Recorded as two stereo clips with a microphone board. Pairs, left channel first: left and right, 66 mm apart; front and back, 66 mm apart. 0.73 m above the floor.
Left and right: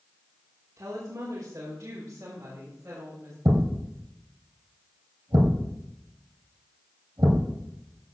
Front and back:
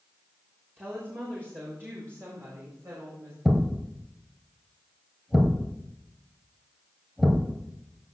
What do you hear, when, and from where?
0.8 s a woman speaking: 120° right, 2.5 m; by 3.4 s 140° right, 3.5 m
3.5 s a thud: 95° right, 2.5 m